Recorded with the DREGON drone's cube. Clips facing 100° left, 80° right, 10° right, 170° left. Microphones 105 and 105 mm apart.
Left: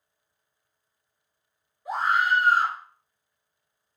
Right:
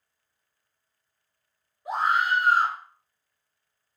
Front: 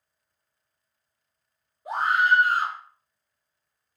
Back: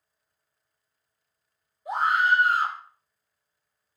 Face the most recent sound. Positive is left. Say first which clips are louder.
# even, front 1 dB
turn(degrees=-10)